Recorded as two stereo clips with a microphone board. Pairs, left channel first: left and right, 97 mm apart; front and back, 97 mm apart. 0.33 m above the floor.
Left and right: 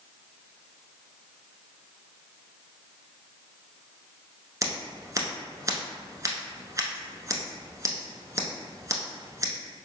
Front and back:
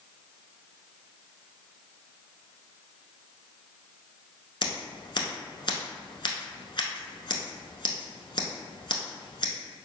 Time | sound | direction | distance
4.6 | scissors | 35° right | 0.8 m